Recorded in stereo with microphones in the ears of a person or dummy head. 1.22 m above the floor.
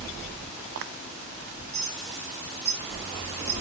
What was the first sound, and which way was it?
A clink, 15° right (ahead or behind).